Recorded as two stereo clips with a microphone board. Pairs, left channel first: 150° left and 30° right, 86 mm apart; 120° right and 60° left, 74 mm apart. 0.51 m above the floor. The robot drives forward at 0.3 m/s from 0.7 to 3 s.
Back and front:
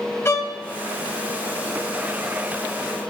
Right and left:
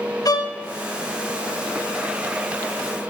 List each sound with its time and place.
0.2 s a violin: 150° right, 1.8 m